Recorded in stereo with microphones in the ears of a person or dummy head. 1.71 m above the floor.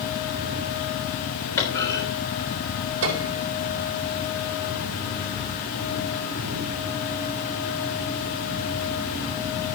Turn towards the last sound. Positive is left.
turn(degrees=-65)  # may be behind; listen again after turning